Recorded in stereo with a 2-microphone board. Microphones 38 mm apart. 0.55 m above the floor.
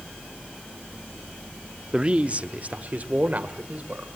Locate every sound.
1.9 s a man speaking: 25° right (ahead or behind), 0.7 m; by 4.1 s 45° right (ahead or behind), 2 m